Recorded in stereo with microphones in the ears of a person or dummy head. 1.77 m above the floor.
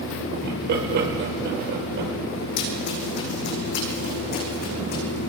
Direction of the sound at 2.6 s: 60° left (ahead or behind).